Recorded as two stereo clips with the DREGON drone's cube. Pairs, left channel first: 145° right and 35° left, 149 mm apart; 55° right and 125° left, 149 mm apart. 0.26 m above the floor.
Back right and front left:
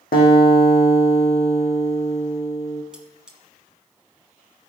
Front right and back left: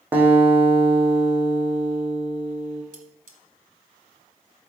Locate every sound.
0.1 s a guitar: 160° right, 3 m
2.9 s cutlery clinking: 120° left, 1.6 m